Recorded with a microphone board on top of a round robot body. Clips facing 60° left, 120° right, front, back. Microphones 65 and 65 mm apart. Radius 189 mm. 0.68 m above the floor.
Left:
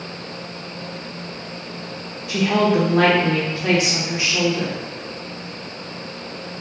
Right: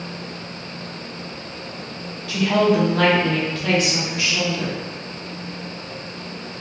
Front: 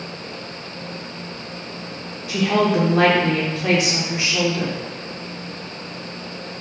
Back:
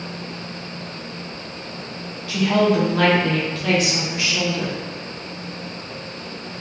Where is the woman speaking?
35° left, 1.0 m.